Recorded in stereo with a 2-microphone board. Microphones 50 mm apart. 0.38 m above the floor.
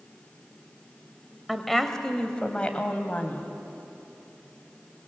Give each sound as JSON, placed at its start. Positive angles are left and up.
{"t": 1.5, "sound": "a woman speaking", "side_deg": 0, "distance_m": 1.6}